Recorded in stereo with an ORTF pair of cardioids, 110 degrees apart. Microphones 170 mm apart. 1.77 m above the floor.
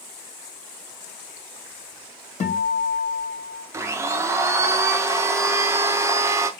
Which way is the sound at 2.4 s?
45° left.